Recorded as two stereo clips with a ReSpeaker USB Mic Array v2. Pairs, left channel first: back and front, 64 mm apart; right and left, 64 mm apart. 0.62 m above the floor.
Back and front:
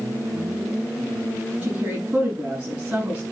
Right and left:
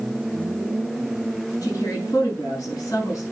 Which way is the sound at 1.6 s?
70° right.